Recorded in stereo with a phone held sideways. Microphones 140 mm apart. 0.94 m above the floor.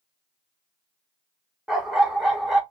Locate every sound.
1.7 s a dog barking: 5° right (ahead or behind), 0.8 m